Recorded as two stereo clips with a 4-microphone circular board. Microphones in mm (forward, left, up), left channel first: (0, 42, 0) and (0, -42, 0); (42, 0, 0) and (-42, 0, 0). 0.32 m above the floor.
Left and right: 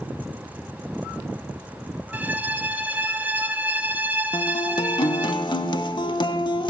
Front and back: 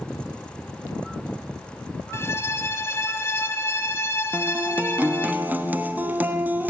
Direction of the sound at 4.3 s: 110° left.